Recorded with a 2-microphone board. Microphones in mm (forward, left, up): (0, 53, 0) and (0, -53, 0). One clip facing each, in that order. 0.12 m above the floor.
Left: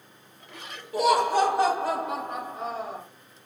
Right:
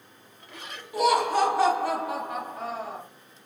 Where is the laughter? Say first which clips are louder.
Left 1 dB; 35° left (ahead or behind), 1.8 m; by 3.0 s 15° left (ahead or behind), 2.5 m.